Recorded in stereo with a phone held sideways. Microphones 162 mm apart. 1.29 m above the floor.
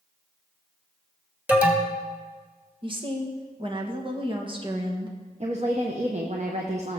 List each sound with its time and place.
1.5 s an alarm: 10° right (ahead or behind), 1.9 m
2.8 s a woman speaking: 30° right (ahead or behind), 1.6 m
5.4 s a woman speaking: 45° right (ahead or behind), 1.1 m